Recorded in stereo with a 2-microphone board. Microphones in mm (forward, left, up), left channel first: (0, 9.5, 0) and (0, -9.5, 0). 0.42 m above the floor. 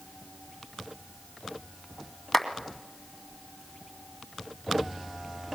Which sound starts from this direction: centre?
A clap, at 2.3 s.